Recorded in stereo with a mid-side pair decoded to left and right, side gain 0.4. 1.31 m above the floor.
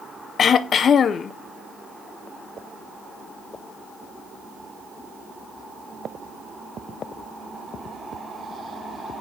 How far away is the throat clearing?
About 0.6 m.